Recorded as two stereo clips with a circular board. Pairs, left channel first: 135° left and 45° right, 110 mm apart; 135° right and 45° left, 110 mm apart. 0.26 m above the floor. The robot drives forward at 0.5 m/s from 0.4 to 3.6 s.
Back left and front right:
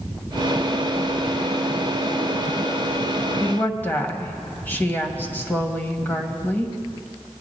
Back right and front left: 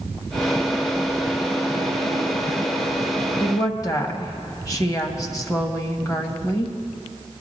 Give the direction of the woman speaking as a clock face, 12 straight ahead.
5 o'clock.